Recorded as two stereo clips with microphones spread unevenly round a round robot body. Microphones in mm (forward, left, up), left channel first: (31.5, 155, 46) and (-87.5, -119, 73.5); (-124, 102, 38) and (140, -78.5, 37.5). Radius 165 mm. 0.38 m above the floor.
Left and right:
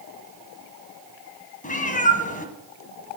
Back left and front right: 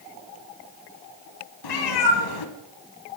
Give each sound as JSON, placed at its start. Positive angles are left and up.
{"t": 1.6, "sound": "a cat meowing", "azimuth_deg": 130, "distance_m": 1.3}